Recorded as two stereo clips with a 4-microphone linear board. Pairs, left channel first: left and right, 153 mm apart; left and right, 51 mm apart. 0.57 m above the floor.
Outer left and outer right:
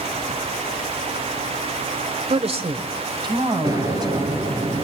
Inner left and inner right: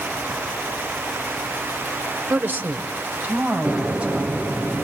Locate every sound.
2.3 s a woman speaking: 45° right (ahead or behind), 1.6 m; by 4.5 s 25° right (ahead or behind), 4 m
3.6 s an explosion: 25° right (ahead or behind), 2.5 m